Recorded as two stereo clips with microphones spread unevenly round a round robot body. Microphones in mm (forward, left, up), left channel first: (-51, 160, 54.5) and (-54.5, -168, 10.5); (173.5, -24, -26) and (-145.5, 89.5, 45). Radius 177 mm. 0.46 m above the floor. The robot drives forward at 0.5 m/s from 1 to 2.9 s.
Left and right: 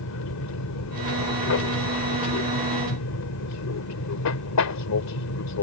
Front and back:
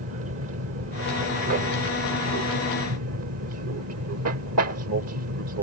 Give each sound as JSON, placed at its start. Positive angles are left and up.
{"t": 0.0, "sound": "an aircraft", "azimuth_deg": 110}